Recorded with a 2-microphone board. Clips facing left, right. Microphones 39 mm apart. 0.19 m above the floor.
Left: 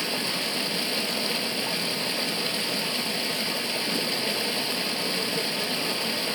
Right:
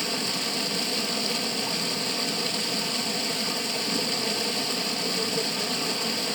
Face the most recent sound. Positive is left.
turn(degrees=15)  # may be behind; listen again after turning